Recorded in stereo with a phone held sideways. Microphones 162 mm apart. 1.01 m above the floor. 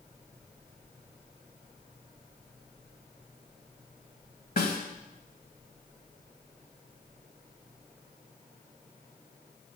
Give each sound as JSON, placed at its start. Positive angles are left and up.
{"t": 4.6, "sound": "a snare drum", "side_deg": 70, "distance_m": 2.0}